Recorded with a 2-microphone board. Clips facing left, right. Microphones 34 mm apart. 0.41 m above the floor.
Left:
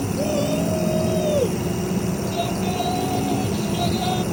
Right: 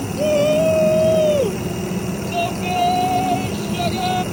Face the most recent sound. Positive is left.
turn(degrees=-45)  # may be behind; listen again after turning